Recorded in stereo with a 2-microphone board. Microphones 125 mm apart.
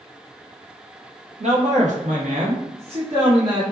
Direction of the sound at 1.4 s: 65° right (ahead or behind).